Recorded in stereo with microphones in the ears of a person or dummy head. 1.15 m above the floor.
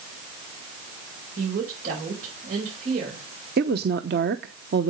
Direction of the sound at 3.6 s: 50° right (ahead or behind).